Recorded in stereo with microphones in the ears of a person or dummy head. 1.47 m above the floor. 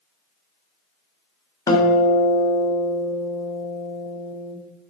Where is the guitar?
20° left (ahead or behind), 1.2 m.